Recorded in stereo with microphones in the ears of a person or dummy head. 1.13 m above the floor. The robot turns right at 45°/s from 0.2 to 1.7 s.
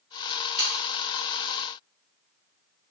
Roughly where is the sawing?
Centre.